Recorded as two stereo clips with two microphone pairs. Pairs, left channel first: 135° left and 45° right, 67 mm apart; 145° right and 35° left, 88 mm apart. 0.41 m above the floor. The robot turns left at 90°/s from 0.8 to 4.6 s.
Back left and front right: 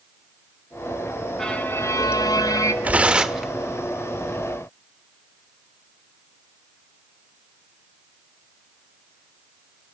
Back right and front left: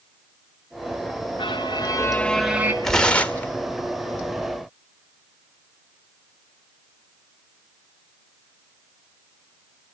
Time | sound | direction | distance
1.4 | a violin | 140° right | 2.5 m
2.8 | tearing paper | 60° right | 1.4 m